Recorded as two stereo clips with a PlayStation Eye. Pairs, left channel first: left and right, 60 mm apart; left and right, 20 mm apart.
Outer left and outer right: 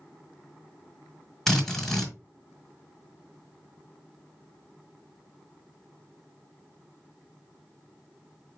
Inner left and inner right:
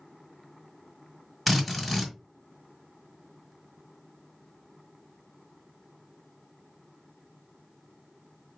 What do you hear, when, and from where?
1.5 s a drill: 5° left (ahead or behind), 1.4 m